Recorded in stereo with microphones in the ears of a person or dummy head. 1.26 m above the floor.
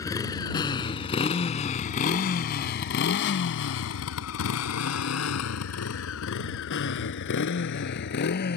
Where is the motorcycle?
15° left (ahead or behind); by 8.6 s 55° left (ahead or behind).